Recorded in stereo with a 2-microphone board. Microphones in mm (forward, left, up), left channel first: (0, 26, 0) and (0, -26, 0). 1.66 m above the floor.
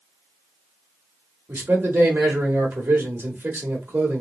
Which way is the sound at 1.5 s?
40° right (ahead or behind).